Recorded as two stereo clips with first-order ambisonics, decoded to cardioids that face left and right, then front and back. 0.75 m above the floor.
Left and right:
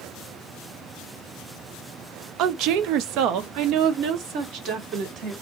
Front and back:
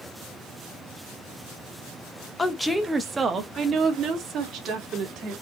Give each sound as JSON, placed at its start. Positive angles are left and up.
{"t": 2.4, "sound": "a woman speaking", "azimuth_deg": -75, "distance_m": 0.7}